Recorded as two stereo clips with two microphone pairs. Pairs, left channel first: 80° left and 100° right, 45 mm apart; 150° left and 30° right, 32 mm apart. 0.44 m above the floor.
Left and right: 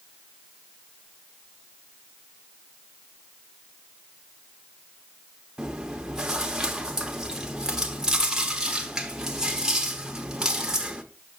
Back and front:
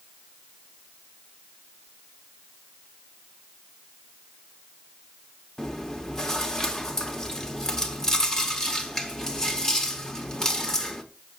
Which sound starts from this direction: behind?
Chewing, at 5.6 s.